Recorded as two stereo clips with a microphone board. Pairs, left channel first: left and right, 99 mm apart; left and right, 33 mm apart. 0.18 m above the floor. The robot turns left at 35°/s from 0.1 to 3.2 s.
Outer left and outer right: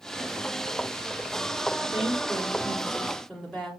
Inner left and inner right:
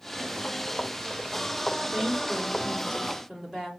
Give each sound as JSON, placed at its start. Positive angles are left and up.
{"t": 1.8, "sound": "a woman speaking", "side_deg": -15, "distance_m": 1.4}